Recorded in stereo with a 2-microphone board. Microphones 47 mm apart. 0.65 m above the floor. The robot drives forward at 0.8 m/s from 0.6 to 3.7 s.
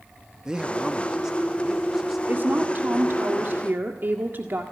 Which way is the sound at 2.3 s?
45° right (ahead or behind).